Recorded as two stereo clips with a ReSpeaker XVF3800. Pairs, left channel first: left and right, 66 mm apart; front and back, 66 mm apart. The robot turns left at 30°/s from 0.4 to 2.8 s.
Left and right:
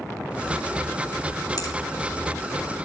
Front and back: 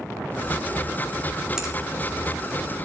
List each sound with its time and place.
1.6 s a finger snap: 100° left, 2.5 m; by 1.7 s 95° left, 2.5 m